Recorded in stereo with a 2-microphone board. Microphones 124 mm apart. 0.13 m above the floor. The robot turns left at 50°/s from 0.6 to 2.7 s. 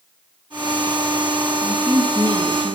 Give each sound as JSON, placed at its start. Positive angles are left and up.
{"t": 1.6, "sound": "a woman speaking", "side_deg": -10, "distance_m": 1.5}